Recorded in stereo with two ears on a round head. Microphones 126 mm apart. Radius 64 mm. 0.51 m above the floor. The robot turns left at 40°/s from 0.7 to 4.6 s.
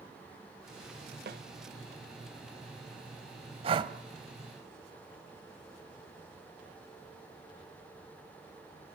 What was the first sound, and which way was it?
A snare drum, 70° right (ahead or behind).